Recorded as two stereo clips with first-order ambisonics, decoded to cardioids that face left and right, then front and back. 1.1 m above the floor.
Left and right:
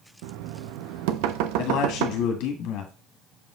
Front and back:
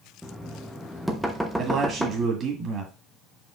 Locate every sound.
0.2 s knocking: 90° right, 0.9 m
1.6 s a man speaking: 120° left, 1.6 m